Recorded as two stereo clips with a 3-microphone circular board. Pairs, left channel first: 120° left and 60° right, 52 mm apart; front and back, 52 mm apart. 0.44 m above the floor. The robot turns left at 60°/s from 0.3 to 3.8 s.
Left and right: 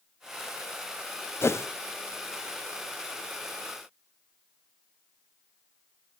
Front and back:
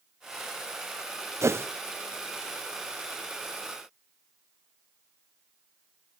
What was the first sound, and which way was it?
A whoosh, 155° left.